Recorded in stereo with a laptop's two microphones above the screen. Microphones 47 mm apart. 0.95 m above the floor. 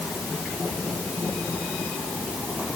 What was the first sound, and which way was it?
Only background noise.